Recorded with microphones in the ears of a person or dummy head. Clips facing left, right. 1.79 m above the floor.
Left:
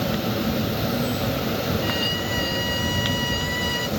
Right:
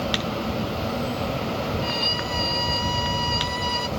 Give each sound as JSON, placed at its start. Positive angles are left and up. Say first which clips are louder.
{"t": 0.0, "sound": "an insect", "louder": "left 3 dB", "side_deg": 20}
{"t": 1.8, "sound": "a violin", "louder": "left 2 dB", "side_deg": 10}